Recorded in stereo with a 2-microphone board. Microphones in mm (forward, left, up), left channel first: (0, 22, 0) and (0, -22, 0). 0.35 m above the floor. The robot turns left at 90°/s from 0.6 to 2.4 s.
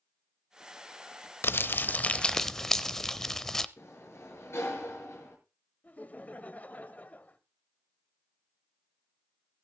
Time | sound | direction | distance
1.4 | crumpling | 95° left | 0.7 m
3.8 | a sliding door | 75° left (ahead or behind) | 5.5 m
5.8 | laughter | 35° left (ahead or behind) | 1.2 m